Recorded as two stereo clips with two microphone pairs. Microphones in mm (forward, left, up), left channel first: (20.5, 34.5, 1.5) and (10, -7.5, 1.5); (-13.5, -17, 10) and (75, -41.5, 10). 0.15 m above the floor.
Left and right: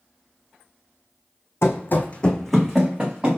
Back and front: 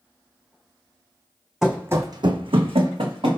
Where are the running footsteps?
65° left, 0.6 m; by 3.4 s 35° right, 1.1 m.